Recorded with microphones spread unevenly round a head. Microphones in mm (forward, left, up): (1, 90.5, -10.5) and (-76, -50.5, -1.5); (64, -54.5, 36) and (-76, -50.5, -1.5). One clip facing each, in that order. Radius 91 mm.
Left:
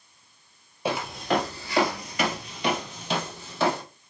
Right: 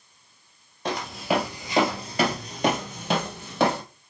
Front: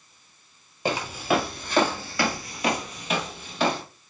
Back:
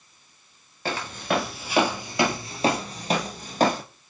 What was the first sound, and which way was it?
Footsteps, 20° right.